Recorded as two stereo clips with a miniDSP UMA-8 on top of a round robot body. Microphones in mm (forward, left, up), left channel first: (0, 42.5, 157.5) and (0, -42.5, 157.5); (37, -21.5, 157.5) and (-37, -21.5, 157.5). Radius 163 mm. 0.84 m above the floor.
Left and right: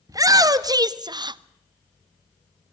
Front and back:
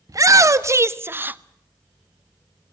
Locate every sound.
0.1 s a shout: 140° right, 1.7 m; by 1.4 s 115° right, 0.9 m